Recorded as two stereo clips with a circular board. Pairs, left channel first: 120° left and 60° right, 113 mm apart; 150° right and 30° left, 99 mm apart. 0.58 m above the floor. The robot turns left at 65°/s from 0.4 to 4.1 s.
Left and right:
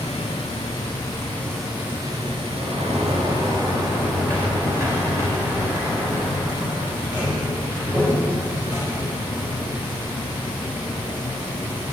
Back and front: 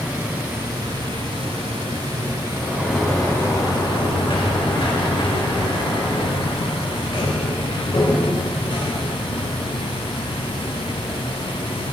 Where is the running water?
105° left, 2.5 m; by 11.9 s 135° right, 2.5 m.